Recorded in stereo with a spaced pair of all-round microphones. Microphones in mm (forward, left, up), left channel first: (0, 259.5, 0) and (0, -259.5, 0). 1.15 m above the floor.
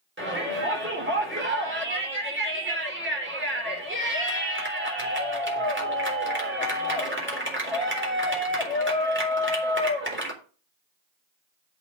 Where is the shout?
25° right (ahead or behind), 4 m.